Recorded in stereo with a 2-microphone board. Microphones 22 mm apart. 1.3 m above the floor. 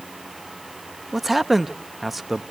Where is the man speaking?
10° right (ahead or behind), 0.8 m.